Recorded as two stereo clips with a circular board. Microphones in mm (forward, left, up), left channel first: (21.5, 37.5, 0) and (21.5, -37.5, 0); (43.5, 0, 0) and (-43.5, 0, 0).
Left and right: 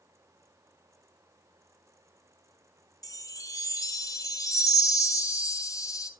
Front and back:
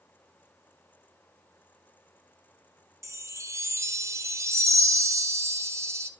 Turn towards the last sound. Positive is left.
turn(degrees=125)